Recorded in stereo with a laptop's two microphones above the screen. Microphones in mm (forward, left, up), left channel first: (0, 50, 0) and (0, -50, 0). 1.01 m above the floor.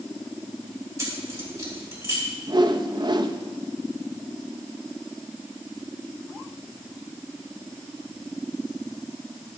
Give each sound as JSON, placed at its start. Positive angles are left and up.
{"t": 1.0, "sound": "keys jangling", "side_deg": -30, "distance_m": 3.0}
{"t": 2.5, "sound": "a whoosh", "side_deg": -50, "distance_m": 0.5}